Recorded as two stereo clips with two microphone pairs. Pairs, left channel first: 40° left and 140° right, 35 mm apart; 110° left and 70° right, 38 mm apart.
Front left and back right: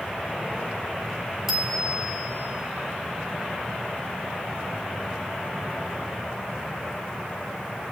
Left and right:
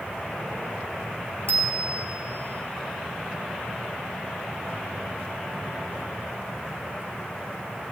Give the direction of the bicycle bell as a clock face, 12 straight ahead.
2 o'clock.